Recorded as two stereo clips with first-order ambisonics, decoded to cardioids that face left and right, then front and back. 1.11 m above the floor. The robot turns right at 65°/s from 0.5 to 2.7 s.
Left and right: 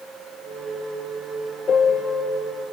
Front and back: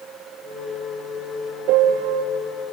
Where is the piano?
155° left, 2 m; by 2.2 s 165° right, 2 m.